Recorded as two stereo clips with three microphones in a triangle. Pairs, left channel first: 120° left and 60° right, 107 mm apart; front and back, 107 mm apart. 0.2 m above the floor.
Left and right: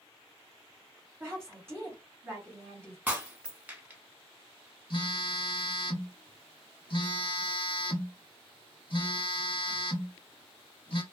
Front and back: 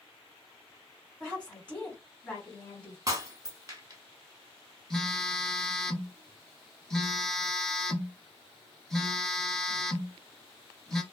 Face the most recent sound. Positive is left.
turn(degrees=85)